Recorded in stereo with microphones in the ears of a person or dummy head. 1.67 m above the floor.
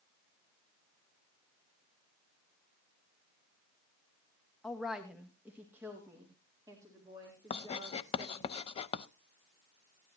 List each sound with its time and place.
4.6 s a woman speaking: 5° left (ahead or behind), 1.2 m; by 8.5 s 25° right (ahead or behind), 4.5 m
7.5 s writing: 35° left (ahead or behind), 0.6 m